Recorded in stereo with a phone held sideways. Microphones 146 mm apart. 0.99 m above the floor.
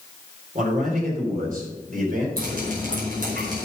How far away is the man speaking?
About 3.5 m.